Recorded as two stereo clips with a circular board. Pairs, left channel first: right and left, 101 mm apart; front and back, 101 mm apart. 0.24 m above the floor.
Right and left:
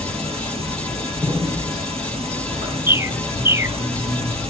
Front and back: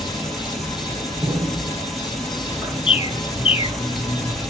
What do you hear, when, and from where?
0.0 s an insect: 90° left, 1.8 m
1.2 s an explosion: 140° left, 2 m
2.9 s a bird: 25° left, 0.7 m